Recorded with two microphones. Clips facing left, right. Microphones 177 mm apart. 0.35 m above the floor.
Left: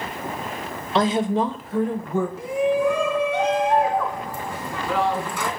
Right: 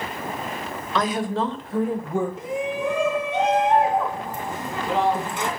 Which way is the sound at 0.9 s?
30° left (ahead or behind).